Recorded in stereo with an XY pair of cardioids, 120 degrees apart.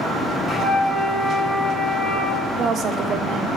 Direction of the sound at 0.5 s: 20° left.